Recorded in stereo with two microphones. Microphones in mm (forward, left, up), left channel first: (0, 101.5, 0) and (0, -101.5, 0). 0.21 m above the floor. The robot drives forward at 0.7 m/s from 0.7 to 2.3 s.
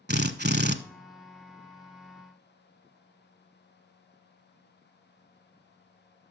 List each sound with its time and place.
0.1 s a drill: 55° right (ahead or behind), 0.8 m